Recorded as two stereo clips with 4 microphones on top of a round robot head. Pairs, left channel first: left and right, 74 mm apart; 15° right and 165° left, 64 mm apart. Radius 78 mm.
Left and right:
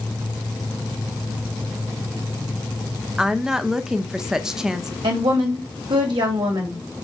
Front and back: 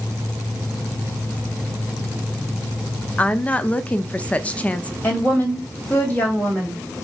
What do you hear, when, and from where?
3.2 s a woman speaking: 20° right, 0.7 m
5.0 s a woman speaking: 80° right, 2.5 m